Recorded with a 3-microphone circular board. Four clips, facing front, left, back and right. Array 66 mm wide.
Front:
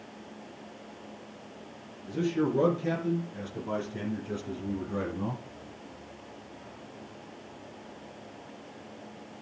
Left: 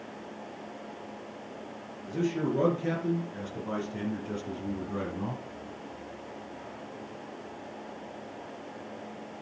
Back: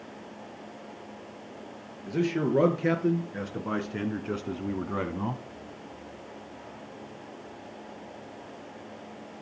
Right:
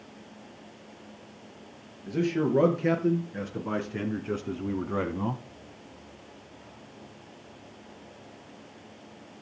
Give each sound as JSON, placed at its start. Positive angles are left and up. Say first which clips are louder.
{"t": 2.1, "sound": "a man speaking", "louder": "right 3 dB, back 2 dB", "azimuth_deg": -155, "distance_m": 3.5}